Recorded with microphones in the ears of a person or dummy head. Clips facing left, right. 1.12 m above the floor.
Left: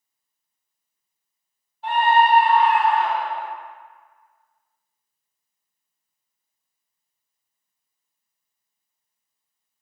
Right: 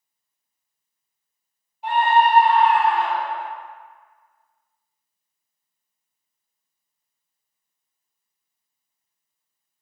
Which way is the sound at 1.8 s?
15° right (ahead or behind).